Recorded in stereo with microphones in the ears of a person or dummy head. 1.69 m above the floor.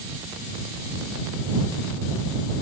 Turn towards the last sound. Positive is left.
No sound to turn to.